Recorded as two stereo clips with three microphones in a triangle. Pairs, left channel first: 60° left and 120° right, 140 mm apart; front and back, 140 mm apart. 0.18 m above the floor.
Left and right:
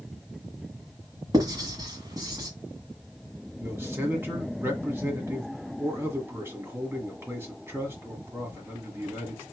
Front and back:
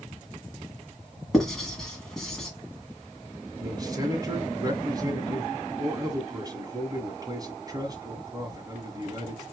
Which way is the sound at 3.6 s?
170° right.